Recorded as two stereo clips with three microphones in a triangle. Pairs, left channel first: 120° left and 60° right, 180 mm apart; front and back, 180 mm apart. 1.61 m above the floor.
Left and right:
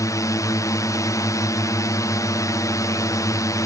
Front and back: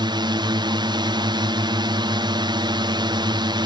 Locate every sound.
0.0 s a drone: 165° left